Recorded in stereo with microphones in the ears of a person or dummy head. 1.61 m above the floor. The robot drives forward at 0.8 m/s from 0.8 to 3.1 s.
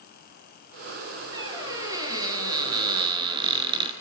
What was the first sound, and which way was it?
A squeak, 20° right (ahead or behind).